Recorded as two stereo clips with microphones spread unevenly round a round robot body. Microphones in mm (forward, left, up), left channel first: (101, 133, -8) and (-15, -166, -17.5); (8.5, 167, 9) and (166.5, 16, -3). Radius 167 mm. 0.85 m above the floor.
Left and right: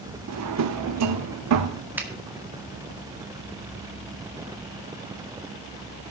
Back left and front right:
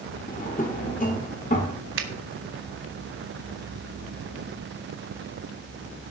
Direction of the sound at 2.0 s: 30° right.